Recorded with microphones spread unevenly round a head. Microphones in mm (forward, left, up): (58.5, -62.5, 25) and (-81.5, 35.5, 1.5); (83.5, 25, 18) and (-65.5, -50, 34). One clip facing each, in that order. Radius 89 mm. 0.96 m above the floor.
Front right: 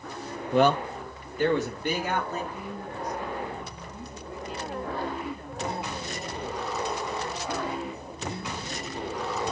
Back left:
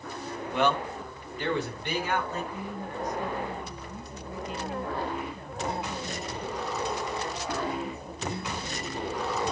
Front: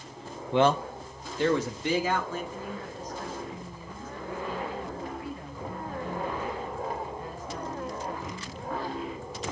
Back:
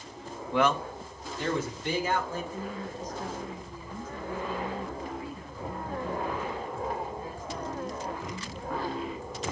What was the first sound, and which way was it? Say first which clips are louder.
A man speaking: front right 5 dB, front 3 dB; 5° right.